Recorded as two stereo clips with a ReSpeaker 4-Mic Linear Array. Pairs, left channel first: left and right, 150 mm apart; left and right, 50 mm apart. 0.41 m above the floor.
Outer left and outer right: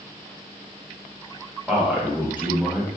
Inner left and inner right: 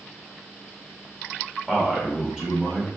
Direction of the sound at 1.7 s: 10° right (ahead or behind).